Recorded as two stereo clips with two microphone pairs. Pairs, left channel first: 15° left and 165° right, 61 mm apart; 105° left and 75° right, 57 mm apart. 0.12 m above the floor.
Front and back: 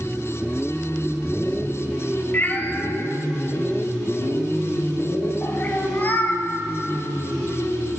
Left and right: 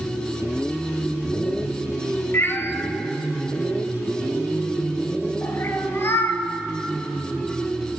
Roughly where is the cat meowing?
Left.